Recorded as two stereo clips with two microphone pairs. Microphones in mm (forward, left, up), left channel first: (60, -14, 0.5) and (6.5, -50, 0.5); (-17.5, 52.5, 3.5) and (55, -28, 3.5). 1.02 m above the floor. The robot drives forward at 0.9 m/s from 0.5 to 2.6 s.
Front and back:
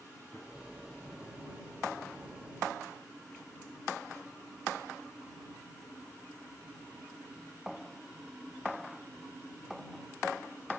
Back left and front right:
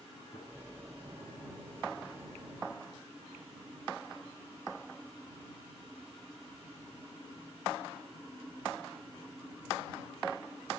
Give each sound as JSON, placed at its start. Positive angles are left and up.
{"t": 0.3, "sound": "a gunshot", "azimuth_deg": 105, "distance_m": 9.5}